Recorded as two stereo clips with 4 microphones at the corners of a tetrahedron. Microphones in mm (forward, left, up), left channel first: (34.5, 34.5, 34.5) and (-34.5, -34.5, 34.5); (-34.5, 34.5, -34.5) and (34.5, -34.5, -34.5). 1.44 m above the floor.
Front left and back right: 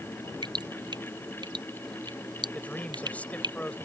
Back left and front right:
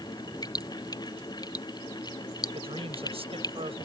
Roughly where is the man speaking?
Ahead right.